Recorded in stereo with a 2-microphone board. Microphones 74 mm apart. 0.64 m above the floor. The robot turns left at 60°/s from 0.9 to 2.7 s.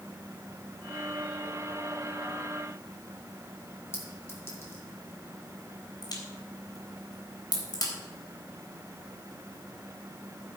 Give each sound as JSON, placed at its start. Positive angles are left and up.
{"t": 3.9, "sound": "a clink", "side_deg": 35, "distance_m": 4.0}
{"t": 6.0, "sound": "a crack", "side_deg": 60, "distance_m": 3.5}